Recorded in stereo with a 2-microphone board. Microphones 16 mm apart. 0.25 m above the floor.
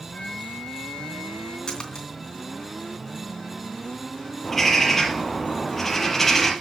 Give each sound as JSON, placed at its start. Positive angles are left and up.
{"t": 0.1, "sound": "a flute", "side_deg": 65, "distance_m": 3.0}
{"t": 1.7, "sound": "a splash", "side_deg": 45, "distance_m": 3.0}
{"t": 4.4, "sound": "a bird", "side_deg": 15, "distance_m": 3.0}